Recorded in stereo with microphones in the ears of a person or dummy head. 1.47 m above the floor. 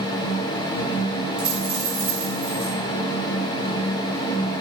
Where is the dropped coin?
45° right (ahead or behind), 5 m.